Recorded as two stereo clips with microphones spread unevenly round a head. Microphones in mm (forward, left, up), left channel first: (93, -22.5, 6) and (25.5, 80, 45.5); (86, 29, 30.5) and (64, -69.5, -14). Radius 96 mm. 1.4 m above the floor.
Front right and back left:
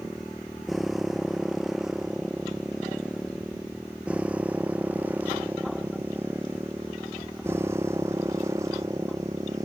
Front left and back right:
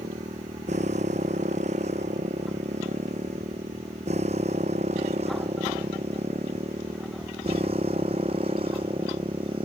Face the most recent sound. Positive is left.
turn(degrees=-165)